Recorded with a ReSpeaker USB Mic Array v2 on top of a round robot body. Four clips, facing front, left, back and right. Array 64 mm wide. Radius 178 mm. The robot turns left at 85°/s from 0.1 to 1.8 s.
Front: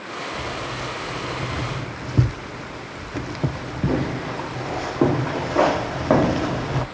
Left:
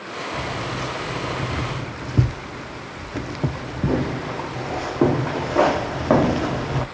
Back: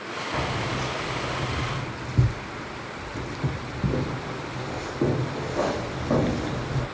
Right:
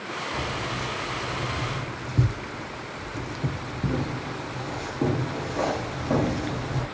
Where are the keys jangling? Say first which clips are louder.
Left 4 dB, back 4 dB; 175° left, 0.8 m; by 6.8 s 50° left, 0.8 m.